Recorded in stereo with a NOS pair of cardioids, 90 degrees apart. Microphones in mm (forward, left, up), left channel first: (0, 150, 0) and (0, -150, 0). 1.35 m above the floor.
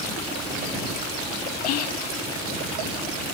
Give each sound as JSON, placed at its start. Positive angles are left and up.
{"t": 1.6, "sound": "whispering", "azimuth_deg": 55}